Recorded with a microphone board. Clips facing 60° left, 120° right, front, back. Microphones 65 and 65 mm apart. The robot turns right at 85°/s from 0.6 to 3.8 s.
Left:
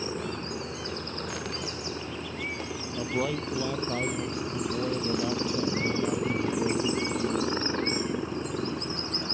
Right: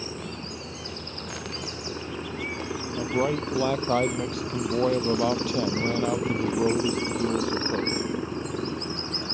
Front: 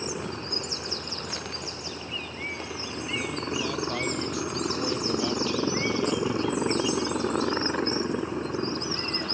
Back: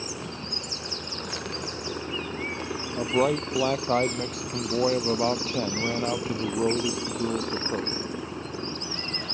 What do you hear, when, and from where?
0.0 s a helicopter: 50° left; by 9.3 s 40° right
3.0 s a man speaking: 155° left; by 8.0 s 135° right